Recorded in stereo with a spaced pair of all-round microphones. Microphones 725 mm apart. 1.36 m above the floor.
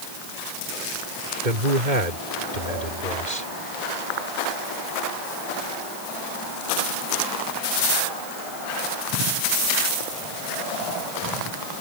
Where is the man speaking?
85° right; by 3.5 s 75° right (ahead or behind).